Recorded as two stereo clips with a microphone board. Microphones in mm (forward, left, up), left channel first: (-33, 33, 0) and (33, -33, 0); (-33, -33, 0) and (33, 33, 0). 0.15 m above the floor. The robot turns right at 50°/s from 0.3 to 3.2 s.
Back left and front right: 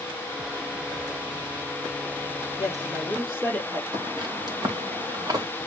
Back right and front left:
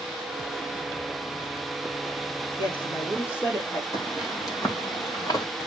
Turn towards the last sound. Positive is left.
turn(degrees=-90)